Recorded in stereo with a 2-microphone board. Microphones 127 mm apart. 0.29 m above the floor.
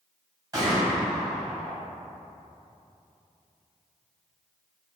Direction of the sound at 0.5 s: 30° right (ahead or behind).